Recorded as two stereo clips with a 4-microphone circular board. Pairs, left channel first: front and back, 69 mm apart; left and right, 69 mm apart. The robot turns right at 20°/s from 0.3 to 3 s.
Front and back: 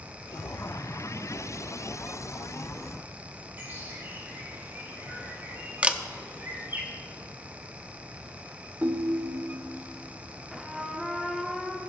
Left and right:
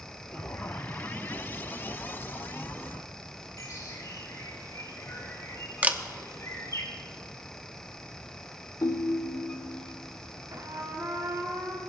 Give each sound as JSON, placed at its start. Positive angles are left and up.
{"t": 3.6, "sound": "a bird", "azimuth_deg": 120, "distance_m": 4.5}
{"t": 5.8, "sound": "a camera shutter", "azimuth_deg": -130, "distance_m": 0.6}
{"t": 8.8, "sound": "a ringtone", "azimuth_deg": 115, "distance_m": 0.6}
{"t": 10.5, "sound": "a trumpet", "azimuth_deg": -95, "distance_m": 1.3}